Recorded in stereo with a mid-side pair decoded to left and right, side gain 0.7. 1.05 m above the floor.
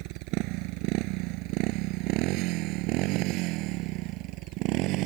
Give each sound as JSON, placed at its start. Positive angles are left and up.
{"t": 0.0, "sound": "a motorcycle", "azimuth_deg": -70}